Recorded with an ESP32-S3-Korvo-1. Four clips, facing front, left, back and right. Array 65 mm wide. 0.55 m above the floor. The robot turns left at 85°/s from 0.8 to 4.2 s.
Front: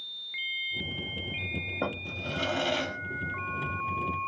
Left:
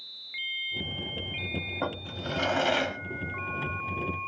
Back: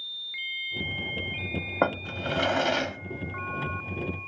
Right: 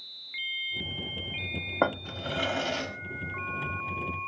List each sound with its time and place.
1.8 s a drawer: 145° right, 0.7 m; by 4.3 s 10° left, 0.7 m